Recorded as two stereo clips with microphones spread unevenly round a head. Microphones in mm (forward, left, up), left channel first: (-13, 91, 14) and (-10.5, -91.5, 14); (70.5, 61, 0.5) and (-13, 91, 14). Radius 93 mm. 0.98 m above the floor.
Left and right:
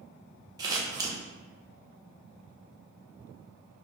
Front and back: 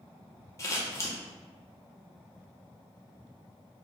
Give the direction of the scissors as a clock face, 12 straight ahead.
1 o'clock.